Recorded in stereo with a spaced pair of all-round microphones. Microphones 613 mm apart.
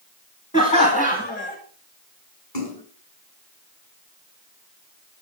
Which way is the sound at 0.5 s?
10° left (ahead or behind).